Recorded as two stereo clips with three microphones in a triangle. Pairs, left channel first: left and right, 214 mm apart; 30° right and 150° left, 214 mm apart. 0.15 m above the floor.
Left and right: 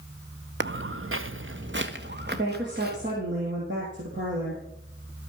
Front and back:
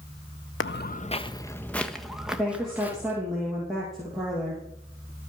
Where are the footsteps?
55° right, 0.6 m; by 3.2 s 130° right, 2 m.